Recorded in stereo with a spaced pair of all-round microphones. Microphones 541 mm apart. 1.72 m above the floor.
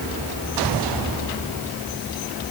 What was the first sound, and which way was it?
Only background noise.